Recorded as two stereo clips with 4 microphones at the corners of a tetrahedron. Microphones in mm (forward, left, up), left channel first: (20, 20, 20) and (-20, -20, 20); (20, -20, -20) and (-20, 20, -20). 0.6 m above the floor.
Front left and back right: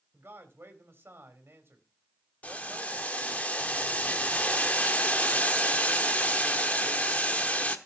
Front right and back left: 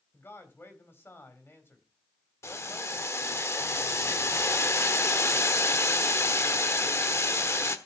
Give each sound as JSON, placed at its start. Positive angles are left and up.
{"t": 0.1, "sound": "a man speaking", "azimuth_deg": -90, "distance_m": 3.0}
{"t": 2.4, "sound": "boiling", "azimuth_deg": -15, "distance_m": 1.1}